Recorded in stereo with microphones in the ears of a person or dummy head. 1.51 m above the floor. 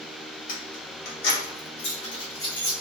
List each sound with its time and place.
0.5 s keys jangling: 60° left (ahead or behind), 1.1 m; by 2.7 s 20° left (ahead or behind), 1.2 m